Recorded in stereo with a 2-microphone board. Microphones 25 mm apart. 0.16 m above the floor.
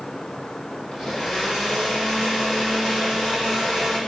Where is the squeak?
No squeak in this recording.